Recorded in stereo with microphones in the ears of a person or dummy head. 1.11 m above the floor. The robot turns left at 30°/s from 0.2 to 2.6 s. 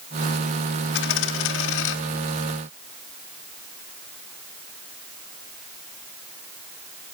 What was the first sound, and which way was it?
A dropped coin, 110° left.